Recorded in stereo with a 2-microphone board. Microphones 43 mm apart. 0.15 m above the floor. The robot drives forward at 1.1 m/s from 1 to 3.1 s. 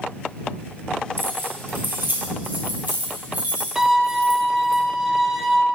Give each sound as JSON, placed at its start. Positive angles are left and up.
{"t": 1.2, "sound": "keys jangling", "side_deg": -65, "distance_m": 2.5}
{"t": 3.8, "sound": "a violin", "side_deg": -10, "distance_m": 0.9}